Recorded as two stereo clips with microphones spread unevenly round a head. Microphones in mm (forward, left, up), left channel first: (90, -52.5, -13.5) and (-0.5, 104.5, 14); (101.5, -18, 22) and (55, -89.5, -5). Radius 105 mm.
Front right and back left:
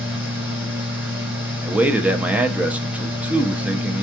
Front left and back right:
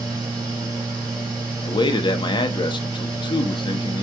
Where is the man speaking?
30° left, 0.6 m.